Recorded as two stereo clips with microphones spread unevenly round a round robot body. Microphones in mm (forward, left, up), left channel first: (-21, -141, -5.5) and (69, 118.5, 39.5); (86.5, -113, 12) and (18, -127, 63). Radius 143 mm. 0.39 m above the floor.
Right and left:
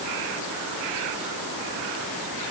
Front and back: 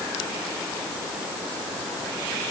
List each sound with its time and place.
Only background noise.